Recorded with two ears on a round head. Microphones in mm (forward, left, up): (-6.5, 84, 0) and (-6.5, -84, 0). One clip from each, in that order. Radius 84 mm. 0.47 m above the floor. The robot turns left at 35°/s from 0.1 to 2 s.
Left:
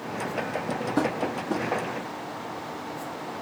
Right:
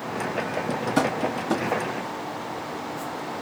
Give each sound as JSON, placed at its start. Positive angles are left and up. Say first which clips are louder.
{"t": 1.0, "sound": "tapping", "louder": "right 3 dB", "side_deg": -85, "distance_m": 0.9}